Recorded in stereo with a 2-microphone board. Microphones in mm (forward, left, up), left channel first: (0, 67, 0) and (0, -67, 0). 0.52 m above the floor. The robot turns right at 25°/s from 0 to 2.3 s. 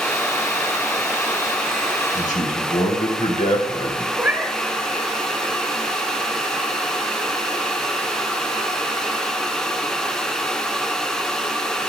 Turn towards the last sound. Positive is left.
turn(degrees=-15)  # may be behind; listen again after turning